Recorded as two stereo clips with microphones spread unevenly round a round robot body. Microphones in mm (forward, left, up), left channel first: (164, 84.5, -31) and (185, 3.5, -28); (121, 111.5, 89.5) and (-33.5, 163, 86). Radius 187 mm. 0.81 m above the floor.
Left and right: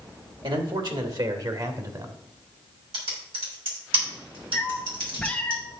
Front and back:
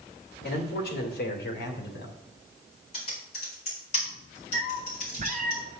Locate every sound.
0.4 s a man speaking: 55° right, 2.5 m; by 2.2 s 30° right, 2.5 m
2.9 s typing on a keyboard: 80° right, 4 m
4.5 s a cat meowing: straight behind, 0.9 m